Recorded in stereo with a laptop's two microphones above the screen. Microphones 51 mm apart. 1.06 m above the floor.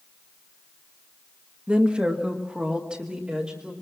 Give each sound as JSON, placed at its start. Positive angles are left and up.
{"t": 1.7, "sound": "a woman speaking", "side_deg": -20, "distance_m": 1.5}